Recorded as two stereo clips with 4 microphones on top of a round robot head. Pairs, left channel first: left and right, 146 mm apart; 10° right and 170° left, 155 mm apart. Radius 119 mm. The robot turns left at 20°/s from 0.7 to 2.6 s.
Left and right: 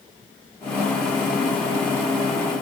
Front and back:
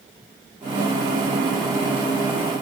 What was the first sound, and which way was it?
Only background noise.